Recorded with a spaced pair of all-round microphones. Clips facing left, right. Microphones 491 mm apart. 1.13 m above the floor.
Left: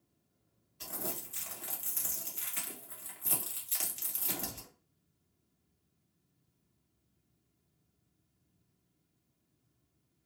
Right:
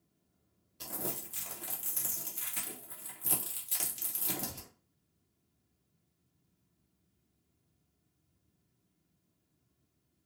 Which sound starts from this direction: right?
Crumpling, at 0.8 s.